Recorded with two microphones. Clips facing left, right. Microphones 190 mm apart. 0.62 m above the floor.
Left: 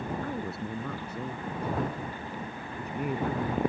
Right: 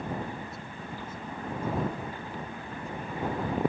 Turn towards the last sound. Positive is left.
turn(degrees=75)  # may be behind; listen again after turning